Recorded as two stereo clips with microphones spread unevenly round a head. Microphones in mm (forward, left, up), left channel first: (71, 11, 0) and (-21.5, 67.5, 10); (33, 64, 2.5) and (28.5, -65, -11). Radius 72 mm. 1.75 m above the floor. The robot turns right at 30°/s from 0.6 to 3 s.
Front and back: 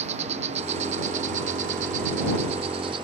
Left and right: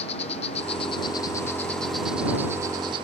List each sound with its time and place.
0.0 s an insect: 135° left; by 3.0 s 155° right